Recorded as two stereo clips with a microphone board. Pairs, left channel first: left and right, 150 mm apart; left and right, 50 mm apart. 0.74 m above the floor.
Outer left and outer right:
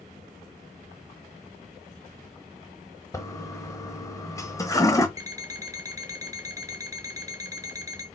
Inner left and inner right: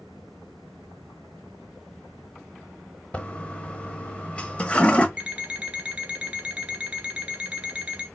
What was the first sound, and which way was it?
A toilet flushing, 20° left (ahead or behind).